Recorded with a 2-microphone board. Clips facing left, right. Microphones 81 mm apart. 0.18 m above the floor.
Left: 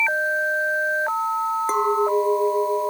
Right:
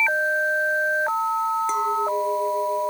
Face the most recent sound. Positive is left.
turn(degrees=40)  # may be behind; listen again after turning